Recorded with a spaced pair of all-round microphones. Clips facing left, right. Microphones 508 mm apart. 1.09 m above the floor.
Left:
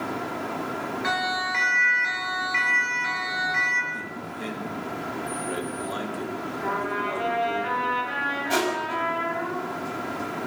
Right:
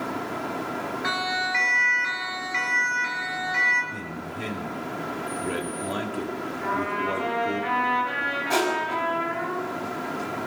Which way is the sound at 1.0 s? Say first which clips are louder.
Left 1 dB; centre (ahead or behind).